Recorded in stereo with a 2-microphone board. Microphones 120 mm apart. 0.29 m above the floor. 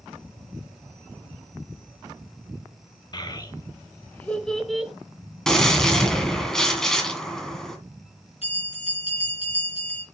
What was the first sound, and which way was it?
A child speaking, 35° left (ahead or behind).